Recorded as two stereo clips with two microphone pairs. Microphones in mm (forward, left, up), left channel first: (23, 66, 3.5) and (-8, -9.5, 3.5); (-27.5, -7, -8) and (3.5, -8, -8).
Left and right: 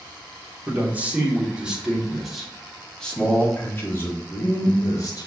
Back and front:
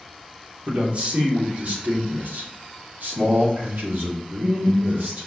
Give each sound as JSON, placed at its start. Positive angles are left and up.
{"t": 0.7, "sound": "a man speaking", "azimuth_deg": -45, "distance_m": 3.0}